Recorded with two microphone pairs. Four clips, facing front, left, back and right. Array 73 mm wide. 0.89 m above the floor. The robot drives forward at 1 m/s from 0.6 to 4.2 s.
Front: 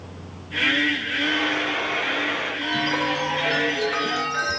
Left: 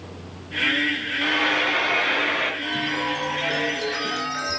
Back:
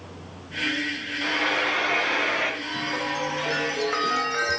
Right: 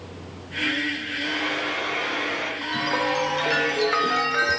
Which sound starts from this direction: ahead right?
A chime, at 2.6 s.